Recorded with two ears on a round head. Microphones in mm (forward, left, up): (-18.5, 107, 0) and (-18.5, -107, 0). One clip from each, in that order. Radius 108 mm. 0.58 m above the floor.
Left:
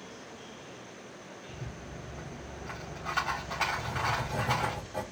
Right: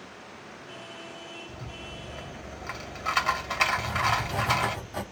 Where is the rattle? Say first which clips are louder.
Right 4 dB; 45° right (ahead or behind), 2 m.